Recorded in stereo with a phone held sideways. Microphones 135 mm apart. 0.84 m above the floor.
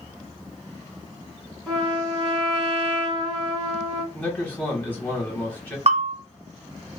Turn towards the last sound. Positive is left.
turn(degrees=-60)  # may be behind; listen again after turning